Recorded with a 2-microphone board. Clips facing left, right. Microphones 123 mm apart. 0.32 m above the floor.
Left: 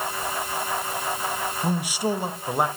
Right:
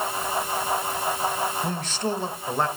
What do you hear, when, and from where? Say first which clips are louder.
1.6 s a man speaking: left 3 dB; 10° left (ahead or behind), 1.0 m